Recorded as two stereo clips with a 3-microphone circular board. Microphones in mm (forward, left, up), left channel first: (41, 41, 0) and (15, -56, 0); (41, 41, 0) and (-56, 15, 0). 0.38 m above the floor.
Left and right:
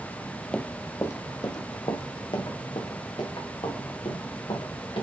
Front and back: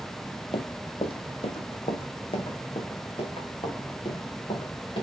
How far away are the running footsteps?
About 0.7 m.